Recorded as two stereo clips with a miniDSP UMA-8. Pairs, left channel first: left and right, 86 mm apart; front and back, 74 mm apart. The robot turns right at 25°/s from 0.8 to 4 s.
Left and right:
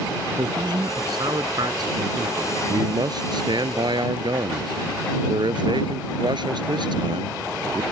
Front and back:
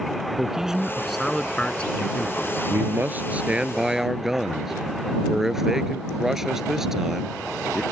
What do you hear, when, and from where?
0.4 s a man speaking: 100° right; by 2.6 s 55° right
2.7 s a man speaking: 130° right; by 7.8 s 95° right